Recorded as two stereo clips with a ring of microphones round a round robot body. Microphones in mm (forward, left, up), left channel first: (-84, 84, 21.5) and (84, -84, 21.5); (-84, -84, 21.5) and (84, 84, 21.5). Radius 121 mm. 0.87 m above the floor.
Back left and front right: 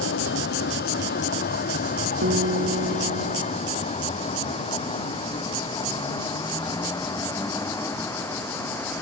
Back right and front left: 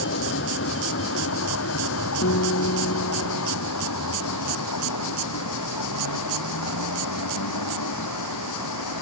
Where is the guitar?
95° right.